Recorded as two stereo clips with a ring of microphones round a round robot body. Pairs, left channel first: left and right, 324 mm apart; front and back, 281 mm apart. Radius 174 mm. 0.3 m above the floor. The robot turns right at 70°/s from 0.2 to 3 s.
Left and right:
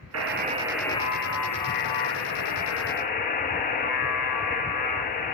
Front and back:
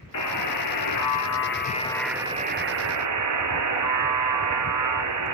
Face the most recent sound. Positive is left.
turn(degrees=155)